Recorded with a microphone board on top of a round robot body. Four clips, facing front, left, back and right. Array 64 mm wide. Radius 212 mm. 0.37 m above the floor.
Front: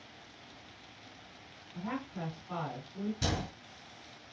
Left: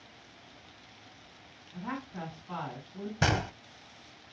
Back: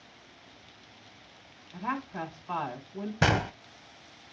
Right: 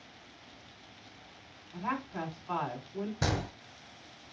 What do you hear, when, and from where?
1.7 s a woman speaking: 130° right, 7 m
3.2 s a gunshot: 165° left, 0.6 m